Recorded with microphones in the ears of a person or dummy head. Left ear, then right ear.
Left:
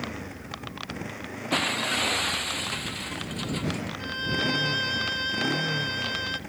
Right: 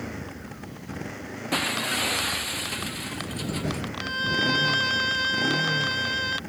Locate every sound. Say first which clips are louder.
0.0 s a motorcycle: left 1 dB; 5° left (ahead or behind)
1.5 s breaking glass: even; 10° left (ahead or behind)
4.0 s a violin: right 4 dB; 15° right (ahead or behind)